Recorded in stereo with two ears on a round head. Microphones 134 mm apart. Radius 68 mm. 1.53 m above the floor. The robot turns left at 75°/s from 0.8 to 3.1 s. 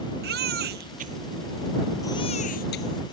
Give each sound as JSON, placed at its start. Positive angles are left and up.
{"t": 0.2, "sound": "a baby crying", "side_deg": -70}